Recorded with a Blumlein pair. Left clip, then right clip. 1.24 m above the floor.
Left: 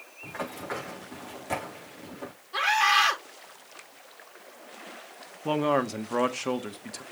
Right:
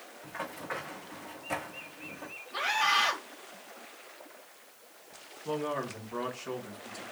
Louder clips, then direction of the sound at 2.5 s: Left 5 dB; 20° left.